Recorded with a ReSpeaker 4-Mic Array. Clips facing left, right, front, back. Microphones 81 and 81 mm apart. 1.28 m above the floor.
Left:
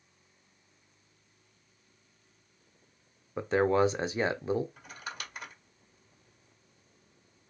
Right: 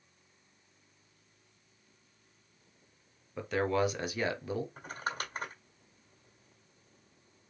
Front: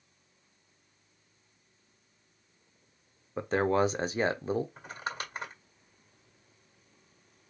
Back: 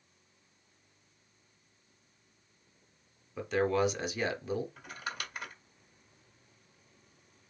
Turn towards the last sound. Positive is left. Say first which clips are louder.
# right 5 dB, front 3 dB
turn(degrees=-45)